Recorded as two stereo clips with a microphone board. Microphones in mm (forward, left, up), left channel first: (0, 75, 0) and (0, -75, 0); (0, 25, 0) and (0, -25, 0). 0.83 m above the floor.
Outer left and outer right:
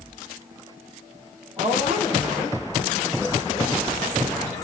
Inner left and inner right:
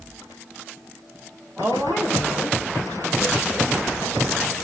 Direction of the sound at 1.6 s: Centre (ahead or behind).